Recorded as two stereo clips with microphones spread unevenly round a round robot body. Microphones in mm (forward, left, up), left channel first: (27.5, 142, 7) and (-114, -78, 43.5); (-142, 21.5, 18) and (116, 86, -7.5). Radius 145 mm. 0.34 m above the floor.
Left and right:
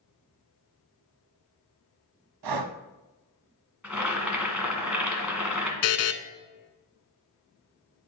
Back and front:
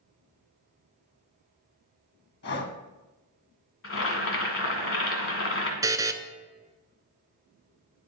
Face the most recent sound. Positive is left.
turn(degrees=95)